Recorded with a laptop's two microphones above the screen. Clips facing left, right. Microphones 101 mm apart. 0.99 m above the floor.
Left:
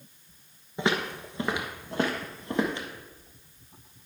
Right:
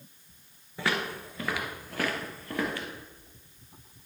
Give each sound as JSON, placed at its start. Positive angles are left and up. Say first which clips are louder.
{"t": 0.8, "sound": "footsteps", "louder": "left 3 dB", "side_deg": 20, "distance_m": 1.0}